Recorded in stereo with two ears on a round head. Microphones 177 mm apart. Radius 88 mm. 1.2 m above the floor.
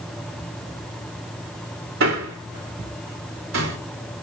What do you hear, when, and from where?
2.0 s a man speaking: 80° right, 4 m